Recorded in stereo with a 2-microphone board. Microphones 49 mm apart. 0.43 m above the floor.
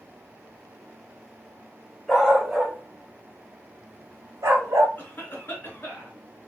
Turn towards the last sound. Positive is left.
turn(degrees=40)  # may be behind; listen again after turning